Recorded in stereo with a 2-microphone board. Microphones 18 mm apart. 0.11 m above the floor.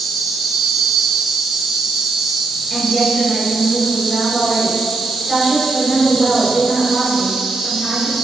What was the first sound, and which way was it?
An insect, 35° right (ahead or behind).